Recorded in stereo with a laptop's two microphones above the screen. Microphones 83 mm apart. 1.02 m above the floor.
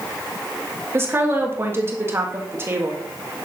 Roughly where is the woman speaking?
Right.